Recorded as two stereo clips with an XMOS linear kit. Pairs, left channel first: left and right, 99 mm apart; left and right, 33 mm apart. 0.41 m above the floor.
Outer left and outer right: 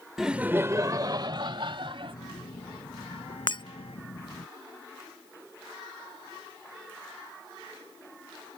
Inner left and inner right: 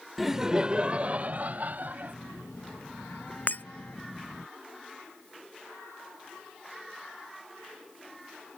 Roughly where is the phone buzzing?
Left.